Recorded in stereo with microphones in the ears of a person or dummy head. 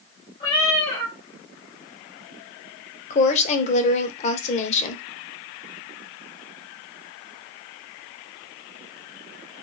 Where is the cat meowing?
30° left (ahead or behind), 1.1 m.